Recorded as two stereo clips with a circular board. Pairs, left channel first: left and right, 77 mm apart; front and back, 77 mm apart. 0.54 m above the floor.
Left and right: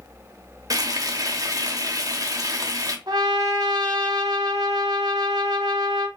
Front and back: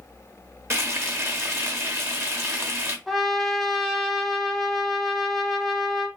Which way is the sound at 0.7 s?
125° right.